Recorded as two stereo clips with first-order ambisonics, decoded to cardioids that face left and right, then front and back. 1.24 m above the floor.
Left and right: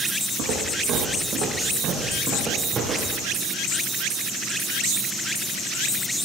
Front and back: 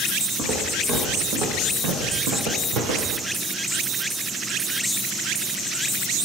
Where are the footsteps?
130° right, 4 m; by 3.2 s 170° right, 4 m.